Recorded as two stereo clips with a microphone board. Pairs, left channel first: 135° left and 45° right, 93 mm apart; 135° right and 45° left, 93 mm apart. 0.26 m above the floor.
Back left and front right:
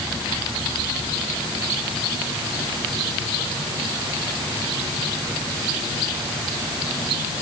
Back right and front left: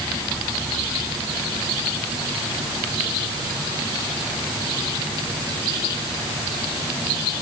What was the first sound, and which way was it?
Only background noise.